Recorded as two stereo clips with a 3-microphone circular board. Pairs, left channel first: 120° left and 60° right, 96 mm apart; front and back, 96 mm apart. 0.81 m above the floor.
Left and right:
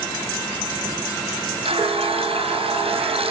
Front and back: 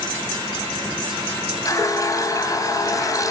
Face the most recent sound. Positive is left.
turn(degrees=-55)